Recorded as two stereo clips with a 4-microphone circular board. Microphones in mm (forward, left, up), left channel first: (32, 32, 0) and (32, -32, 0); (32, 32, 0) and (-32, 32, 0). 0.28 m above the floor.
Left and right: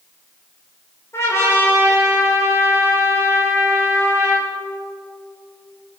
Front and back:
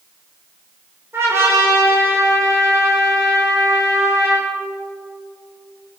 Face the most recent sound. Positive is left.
turn(degrees=135)